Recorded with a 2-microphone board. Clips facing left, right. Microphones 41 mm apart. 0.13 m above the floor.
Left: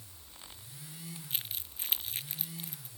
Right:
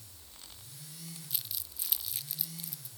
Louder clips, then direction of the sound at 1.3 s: Left 4 dB; 40° left (ahead or behind).